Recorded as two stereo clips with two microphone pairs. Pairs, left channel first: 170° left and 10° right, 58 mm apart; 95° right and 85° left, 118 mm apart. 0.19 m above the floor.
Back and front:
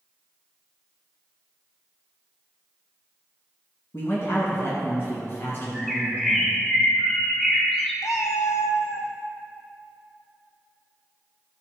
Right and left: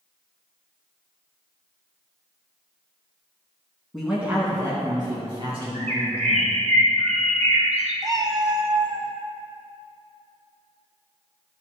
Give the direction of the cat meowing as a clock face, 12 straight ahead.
7 o'clock.